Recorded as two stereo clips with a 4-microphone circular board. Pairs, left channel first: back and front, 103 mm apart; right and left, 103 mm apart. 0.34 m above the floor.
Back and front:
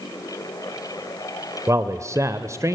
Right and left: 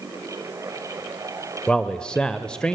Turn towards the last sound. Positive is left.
turn(degrees=-15)